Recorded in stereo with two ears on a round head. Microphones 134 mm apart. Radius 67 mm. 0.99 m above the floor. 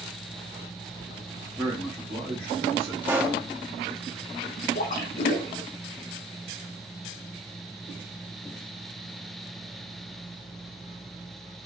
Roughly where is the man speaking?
Centre.